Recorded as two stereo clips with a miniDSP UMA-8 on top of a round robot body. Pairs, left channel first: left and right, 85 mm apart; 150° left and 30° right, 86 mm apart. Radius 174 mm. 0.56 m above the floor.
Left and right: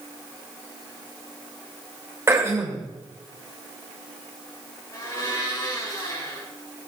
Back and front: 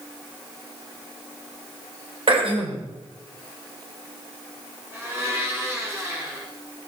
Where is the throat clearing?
30° right, 2 m.